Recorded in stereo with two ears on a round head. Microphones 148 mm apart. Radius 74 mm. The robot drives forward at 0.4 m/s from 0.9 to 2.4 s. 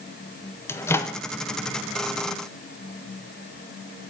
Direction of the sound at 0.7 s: 15° left (ahead or behind).